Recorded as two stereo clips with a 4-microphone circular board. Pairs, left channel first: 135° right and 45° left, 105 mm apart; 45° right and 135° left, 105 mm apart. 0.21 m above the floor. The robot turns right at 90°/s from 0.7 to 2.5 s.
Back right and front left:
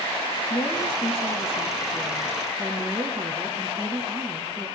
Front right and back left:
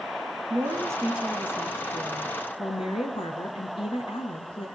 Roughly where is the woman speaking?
Behind.